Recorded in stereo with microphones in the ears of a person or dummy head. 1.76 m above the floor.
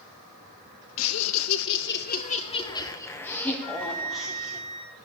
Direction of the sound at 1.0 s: 80° left.